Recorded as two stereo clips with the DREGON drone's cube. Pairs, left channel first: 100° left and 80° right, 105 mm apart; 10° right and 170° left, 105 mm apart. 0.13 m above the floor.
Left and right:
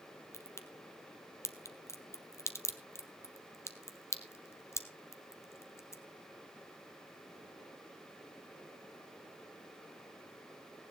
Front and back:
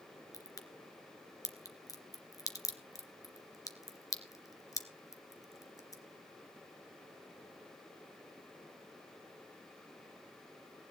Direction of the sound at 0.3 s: 40° left.